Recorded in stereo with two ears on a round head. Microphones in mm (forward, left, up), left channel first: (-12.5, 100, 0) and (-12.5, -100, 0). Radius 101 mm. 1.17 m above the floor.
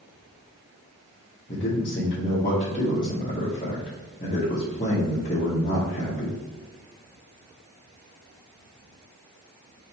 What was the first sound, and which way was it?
A man speaking, 30° left (ahead or behind).